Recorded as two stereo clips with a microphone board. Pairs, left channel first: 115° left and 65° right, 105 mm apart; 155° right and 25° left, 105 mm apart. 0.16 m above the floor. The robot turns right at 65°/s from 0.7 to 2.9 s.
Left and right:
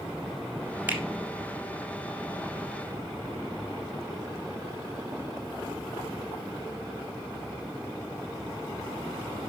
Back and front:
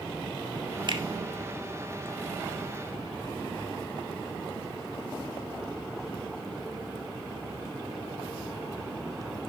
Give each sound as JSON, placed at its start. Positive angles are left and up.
{"t": 0.9, "sound": "a finger snap", "azimuth_deg": 0, "distance_m": 1.5}